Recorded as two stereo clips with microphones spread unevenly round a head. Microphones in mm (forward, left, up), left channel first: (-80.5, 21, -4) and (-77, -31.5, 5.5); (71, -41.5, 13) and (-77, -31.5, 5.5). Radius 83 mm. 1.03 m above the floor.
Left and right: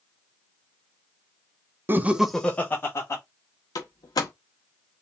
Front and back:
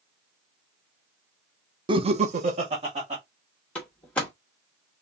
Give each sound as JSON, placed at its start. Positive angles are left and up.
{"t": 1.9, "sound": "laughter", "azimuth_deg": -135, "distance_m": 0.8}
{"t": 3.8, "sound": "a door slam", "azimuth_deg": 80, "distance_m": 0.8}